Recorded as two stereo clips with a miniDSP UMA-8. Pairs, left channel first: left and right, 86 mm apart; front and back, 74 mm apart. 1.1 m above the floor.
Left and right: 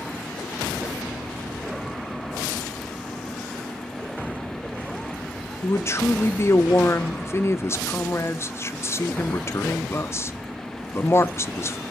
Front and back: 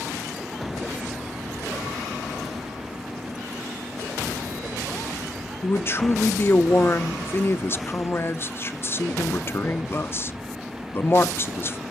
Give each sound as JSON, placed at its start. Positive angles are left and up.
{"t": 5.6, "sound": "a man speaking", "azimuth_deg": 45, "distance_m": 0.6}